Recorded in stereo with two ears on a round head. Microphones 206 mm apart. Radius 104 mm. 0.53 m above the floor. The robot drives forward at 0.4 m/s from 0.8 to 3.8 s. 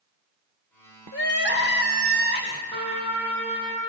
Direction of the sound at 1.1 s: 55° left (ahead or behind).